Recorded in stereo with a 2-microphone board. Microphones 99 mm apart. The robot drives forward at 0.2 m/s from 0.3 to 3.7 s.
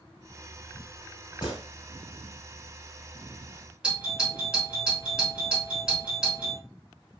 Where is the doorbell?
10° right (ahead or behind), 1.7 m.